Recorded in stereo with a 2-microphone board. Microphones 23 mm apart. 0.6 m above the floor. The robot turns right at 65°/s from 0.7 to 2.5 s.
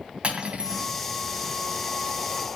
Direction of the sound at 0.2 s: 60° right (ahead or behind).